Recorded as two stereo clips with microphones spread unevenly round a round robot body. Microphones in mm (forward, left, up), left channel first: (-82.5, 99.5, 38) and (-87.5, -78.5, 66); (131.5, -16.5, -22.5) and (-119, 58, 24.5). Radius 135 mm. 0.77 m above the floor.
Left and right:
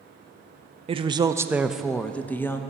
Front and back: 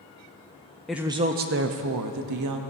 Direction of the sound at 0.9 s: 75° right.